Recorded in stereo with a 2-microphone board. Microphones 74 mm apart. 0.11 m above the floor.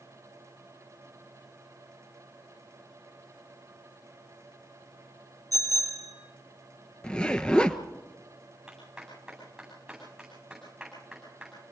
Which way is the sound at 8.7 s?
5° right (ahead or behind).